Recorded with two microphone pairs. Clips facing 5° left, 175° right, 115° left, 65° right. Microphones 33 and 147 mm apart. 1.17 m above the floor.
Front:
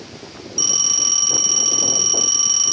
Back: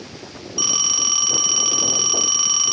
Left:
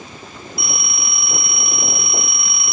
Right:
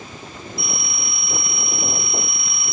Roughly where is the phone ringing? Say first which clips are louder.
Even, left 2 dB; behind left.